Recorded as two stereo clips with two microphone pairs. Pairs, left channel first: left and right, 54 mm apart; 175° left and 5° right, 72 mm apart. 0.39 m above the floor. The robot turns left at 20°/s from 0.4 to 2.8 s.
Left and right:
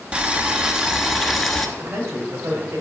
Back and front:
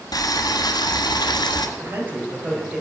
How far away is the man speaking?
About 2.5 m.